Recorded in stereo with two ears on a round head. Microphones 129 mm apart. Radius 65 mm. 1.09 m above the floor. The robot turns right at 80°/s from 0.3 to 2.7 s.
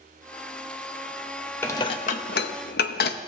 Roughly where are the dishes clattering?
Centre.